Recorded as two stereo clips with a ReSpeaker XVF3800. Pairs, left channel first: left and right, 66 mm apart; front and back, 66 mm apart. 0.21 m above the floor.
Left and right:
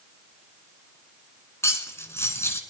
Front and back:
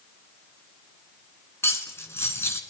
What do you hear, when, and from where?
1.6 s cutlery clinking: 45° left, 1.6 m